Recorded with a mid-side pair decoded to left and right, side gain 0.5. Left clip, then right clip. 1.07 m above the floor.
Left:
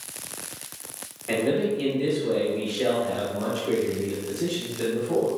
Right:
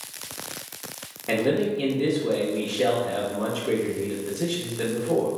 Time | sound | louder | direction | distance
1.3 | a man speaking | right 1 dB | 40° right | 0.9 m